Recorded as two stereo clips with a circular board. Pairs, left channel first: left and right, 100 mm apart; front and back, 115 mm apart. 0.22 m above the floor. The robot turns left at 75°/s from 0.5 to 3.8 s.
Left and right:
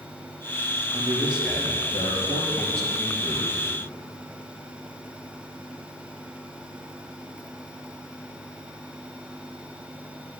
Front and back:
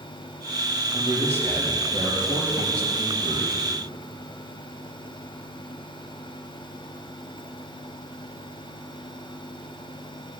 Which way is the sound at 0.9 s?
140° right.